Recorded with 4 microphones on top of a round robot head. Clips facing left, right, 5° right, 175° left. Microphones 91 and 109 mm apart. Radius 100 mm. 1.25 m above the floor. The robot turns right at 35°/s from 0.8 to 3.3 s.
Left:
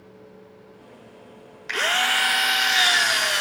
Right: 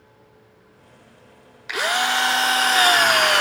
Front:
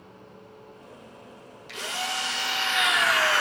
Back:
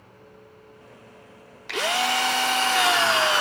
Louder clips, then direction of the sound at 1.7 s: Right 2 dB, back 9 dB; 170° right.